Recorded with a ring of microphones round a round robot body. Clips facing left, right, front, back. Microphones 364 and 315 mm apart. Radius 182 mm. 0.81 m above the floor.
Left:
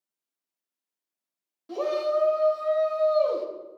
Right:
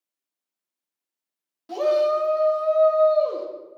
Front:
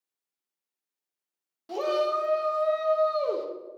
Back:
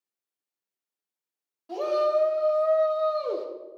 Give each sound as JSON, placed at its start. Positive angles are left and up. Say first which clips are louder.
{"t": 1.7, "sound": "a shout", "louder": "right 5 dB, back 2 dB", "azimuth_deg": -30, "distance_m": 1.1}